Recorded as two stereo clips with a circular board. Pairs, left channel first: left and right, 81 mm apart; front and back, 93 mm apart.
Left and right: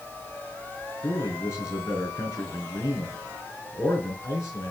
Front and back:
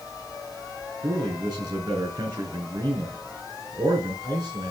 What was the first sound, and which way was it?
A man speaking, 130° left.